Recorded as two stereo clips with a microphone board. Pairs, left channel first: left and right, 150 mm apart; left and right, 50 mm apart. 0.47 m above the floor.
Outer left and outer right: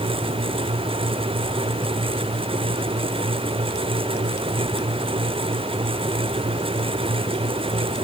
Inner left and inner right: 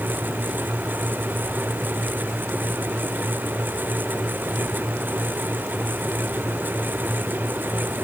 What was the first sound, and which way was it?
Only background noise.